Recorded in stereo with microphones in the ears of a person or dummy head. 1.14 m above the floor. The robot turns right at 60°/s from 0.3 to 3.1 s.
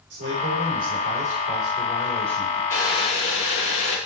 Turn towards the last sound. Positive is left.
turn(degrees=35)  # may be behind; listen again after turning